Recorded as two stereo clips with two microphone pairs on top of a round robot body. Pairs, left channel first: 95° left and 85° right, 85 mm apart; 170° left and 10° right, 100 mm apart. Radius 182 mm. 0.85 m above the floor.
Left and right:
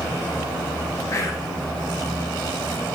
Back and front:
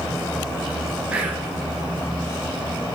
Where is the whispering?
60° left, 0.8 m.